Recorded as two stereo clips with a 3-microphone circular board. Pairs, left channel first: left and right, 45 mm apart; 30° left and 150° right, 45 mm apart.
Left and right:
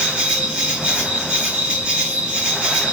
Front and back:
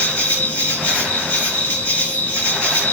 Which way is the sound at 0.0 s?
20° right.